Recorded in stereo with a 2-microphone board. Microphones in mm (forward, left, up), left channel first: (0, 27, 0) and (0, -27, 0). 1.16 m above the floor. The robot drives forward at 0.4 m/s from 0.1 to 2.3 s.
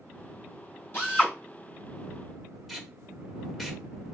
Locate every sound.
0.9 s a drill: 40° left (ahead or behind), 4 m
2.7 s tape being pulled: centre (ahead or behind), 1.0 m